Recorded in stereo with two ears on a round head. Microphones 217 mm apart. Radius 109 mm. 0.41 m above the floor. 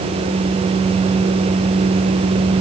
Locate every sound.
Only background noise.